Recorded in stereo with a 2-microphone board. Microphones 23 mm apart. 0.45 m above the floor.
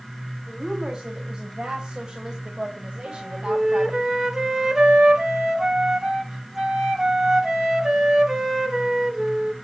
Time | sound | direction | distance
0.5 | a woman speaking | 20° right (ahead or behind) | 3 m
3.0 | a flute | 20° right (ahead or behind) | 2.5 m